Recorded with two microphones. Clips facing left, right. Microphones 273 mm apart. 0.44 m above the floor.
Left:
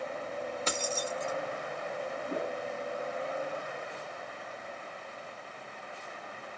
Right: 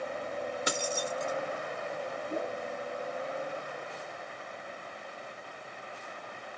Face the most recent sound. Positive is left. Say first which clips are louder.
# even
turn(degrees=85)